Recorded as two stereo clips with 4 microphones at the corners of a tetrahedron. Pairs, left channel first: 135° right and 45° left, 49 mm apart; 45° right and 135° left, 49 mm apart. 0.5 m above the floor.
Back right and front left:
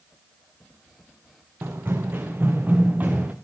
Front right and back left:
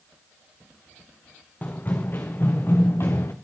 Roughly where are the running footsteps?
Ahead.